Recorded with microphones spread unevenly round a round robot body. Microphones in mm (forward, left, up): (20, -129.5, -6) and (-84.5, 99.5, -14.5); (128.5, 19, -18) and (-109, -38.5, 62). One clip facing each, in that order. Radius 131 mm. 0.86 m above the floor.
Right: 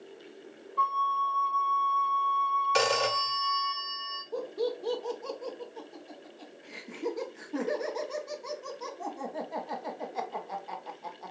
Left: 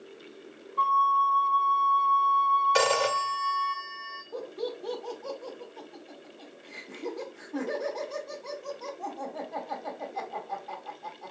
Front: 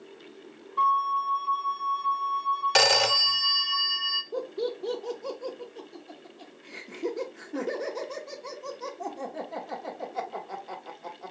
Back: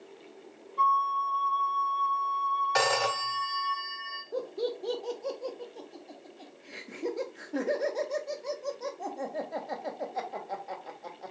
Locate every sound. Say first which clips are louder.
0.8 s a flute: left 5 dB, front 1 dB; 10° left, 1.0 m
2.8 s a phone ringing: left 2 dB, front 4 dB; 15° left, 0.5 m
4.3 s laughter: right 3 dB, front 2 dB; 40° right, 0.9 m